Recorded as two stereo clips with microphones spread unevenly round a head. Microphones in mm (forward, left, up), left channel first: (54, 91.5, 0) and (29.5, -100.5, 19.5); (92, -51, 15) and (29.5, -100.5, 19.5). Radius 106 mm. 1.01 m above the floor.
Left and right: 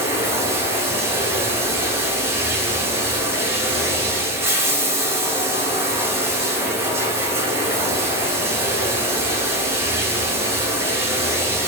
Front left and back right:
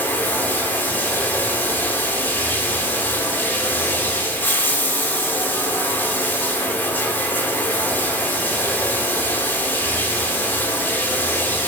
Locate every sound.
0.0 s running water: 30° right, 0.7 m